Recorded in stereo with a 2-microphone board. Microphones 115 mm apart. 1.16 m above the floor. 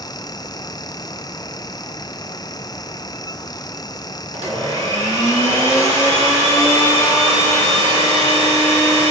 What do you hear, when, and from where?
4.3 s a blender: 65° right (ahead or behind), 1.9 m